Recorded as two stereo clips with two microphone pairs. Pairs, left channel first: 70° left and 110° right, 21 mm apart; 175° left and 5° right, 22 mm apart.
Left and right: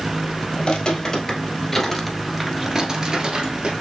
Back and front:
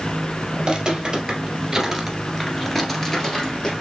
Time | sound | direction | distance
0.6 | footsteps | 40° left | 1.9 m